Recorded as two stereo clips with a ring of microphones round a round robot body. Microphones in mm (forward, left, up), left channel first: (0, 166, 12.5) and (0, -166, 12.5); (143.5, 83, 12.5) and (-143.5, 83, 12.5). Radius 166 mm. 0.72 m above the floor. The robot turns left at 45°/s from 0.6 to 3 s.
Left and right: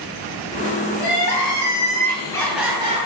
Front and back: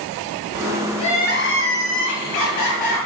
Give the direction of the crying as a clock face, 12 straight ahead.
10 o'clock.